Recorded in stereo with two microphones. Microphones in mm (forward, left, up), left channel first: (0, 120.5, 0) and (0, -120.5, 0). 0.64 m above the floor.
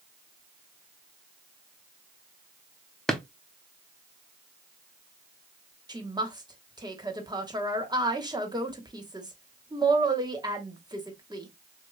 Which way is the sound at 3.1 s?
Centre (ahead or behind).